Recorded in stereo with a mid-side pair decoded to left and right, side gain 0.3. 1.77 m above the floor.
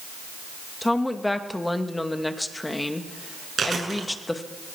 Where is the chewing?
65° right, 7.5 m.